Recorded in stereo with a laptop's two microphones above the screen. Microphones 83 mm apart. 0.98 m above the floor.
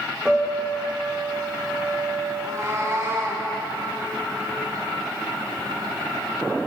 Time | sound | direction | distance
0.2 | a piano | 10° right (ahead or behind) | 3 m
2.4 | a cat meowing | 40° right (ahead or behind) | 5.5 m